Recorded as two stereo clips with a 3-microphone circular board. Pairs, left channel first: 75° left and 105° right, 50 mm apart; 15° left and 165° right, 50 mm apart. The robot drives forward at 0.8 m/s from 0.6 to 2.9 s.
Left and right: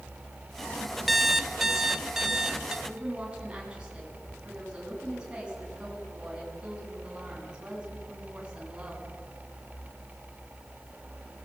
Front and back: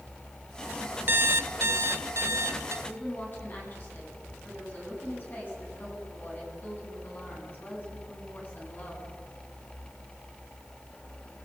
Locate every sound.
1.1 s an alarm clock: 165° left, 0.6 m; by 2.8 s 175° left, 1.9 m
2.9 s a woman speaking: 35° right, 9 m